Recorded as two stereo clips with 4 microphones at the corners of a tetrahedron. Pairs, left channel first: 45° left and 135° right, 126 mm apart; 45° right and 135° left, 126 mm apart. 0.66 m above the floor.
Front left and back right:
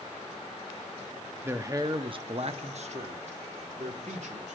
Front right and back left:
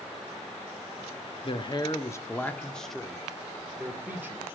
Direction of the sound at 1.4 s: 65° right.